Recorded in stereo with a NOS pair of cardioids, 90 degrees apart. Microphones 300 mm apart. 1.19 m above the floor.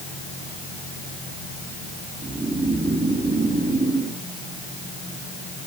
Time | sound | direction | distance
2.2 | snoring | 25° right | 2.5 m